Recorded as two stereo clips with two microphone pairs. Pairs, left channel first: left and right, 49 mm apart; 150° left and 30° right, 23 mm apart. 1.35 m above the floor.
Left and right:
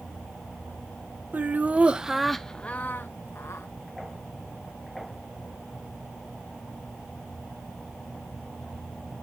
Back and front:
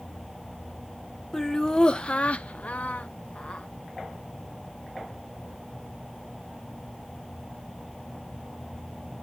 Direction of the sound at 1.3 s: 140° right.